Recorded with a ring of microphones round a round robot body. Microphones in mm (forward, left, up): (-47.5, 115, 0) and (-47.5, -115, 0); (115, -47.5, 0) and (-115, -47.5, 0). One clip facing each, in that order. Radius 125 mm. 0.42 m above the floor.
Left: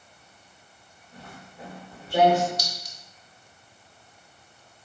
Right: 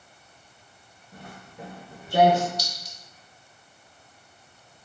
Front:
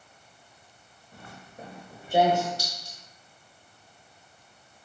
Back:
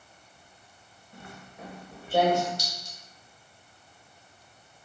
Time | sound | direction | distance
1.1 | footsteps | 45° right | 1.4 m
2.6 | a clink | 110° left | 0.6 m